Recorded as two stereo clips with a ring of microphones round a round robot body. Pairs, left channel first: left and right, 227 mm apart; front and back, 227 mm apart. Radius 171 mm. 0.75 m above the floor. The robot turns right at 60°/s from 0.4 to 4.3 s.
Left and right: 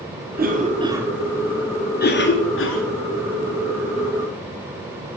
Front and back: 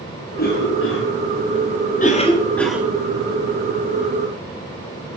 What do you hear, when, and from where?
0.4 s a cough: 50° right, 1.8 m; by 2.8 s 100° left, 1.8 m